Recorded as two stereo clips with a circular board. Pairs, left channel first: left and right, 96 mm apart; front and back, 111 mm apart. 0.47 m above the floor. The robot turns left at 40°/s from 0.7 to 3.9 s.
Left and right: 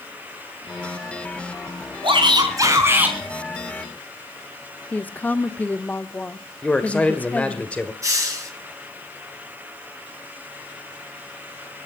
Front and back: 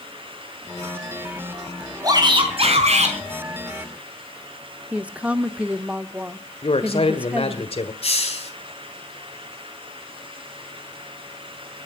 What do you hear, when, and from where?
2.0 s a shout: 120° right, 5 m; by 3.2 s 165° right, 5 m
4.9 s a woman speaking: 125° left, 0.7 m
6.6 s a man speaking: 15° left, 1.7 m
8.0 s a hiss: 30° right, 3.5 m